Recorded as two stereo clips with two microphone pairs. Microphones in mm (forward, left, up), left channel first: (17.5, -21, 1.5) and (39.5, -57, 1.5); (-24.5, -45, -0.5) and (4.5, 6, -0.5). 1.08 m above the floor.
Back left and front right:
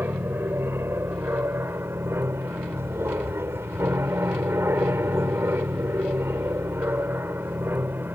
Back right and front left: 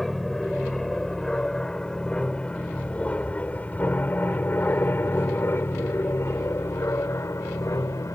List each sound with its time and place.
0.0 s an aircraft: 35° right; by 8.2 s 95° right